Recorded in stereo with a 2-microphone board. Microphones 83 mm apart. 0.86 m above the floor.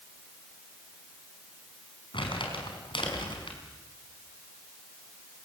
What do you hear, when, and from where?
2.1 s crumpling: 80° left, 6 m